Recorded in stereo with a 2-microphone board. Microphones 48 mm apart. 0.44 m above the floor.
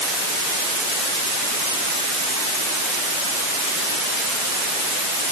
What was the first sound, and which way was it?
Only background noise.